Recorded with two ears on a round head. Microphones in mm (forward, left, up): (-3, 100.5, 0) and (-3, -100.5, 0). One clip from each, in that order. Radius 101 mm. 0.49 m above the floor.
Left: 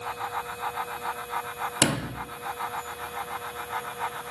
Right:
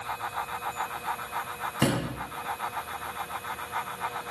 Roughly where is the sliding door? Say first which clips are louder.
Left 2 dB; left.